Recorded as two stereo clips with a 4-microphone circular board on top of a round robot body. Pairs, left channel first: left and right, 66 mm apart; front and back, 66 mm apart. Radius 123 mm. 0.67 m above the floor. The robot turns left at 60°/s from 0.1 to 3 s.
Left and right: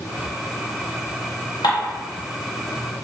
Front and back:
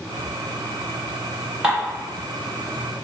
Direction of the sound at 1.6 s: 105° left.